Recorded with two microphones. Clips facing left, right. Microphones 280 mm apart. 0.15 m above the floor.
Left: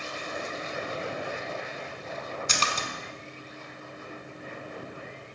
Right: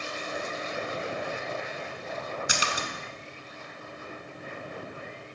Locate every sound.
2.5 s a splash: 15° right (ahead or behind), 0.7 m